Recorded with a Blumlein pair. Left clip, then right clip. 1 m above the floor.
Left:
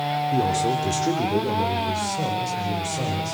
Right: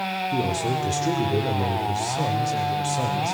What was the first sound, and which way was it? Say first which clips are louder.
A man speaking: left 4 dB; 10° left.